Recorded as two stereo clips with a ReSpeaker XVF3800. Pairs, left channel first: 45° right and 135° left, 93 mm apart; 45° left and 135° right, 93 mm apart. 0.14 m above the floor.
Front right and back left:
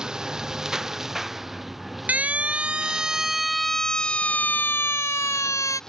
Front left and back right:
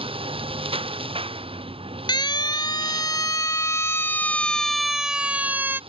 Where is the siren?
65° left; by 5.8 s 75° right.